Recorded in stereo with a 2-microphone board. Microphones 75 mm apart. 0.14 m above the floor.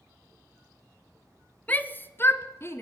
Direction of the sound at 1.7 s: 20° left (ahead or behind).